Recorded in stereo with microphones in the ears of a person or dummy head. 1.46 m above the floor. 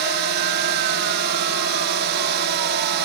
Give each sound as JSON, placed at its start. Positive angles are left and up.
{"t": 0.0, "sound": "a drone", "side_deg": -60}